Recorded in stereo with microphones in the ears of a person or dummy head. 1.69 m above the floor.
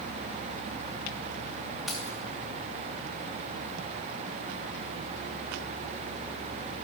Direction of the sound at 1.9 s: Centre (ahead or behind).